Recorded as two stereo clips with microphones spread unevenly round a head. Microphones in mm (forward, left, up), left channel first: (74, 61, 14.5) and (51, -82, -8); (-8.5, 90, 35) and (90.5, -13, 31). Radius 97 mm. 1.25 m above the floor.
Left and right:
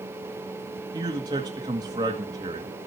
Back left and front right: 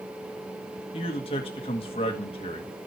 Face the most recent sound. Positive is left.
turn(degrees=-170)